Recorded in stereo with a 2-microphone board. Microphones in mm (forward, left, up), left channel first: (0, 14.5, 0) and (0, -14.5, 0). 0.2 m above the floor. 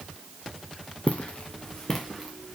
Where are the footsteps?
50° left (ahead or behind), 1.2 m; by 2.6 s 10° right (ahead or behind), 2 m.